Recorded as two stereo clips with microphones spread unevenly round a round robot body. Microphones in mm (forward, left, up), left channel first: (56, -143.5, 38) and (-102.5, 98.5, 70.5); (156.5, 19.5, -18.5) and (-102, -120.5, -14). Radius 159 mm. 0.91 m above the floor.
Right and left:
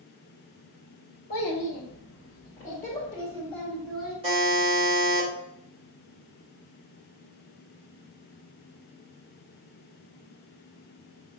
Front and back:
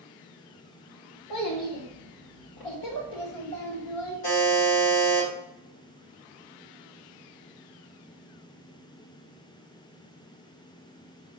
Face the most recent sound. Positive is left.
turn(degrees=50)